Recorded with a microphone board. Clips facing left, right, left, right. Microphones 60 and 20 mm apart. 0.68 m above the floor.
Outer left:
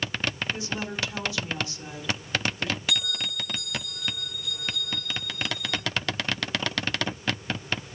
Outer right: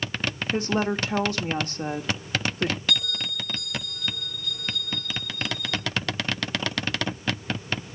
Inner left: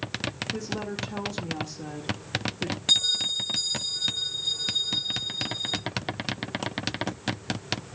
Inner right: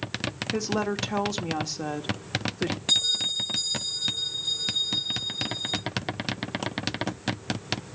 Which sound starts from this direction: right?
A woman speaking, at 0.5 s.